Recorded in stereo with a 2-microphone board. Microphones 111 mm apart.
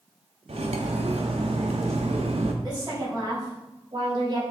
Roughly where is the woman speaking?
Right.